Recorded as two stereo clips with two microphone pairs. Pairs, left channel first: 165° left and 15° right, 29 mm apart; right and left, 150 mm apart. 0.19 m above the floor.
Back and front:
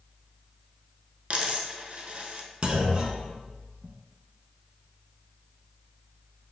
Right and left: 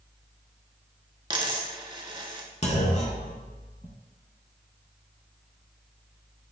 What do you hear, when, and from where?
1.3 s a dropped coin: 30° left, 0.7 m
2.6 s a clunk: 65° right, 0.6 m